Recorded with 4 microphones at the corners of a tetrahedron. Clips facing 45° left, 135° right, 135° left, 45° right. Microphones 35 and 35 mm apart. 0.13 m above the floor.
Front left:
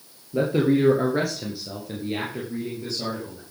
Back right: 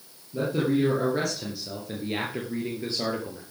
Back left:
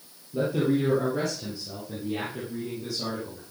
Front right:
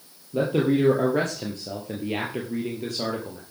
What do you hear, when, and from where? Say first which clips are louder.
0.3 s a man speaking: front left 4 dB, front right 3 dB; straight ahead, 3.5 m; by 3.4 s 90° right, 4 m